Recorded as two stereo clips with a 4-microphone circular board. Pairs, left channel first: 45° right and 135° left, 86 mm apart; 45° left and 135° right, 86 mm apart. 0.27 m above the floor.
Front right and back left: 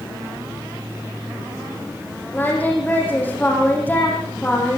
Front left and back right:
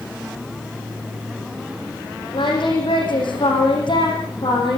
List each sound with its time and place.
2.3 s singing: 25° left, 8 m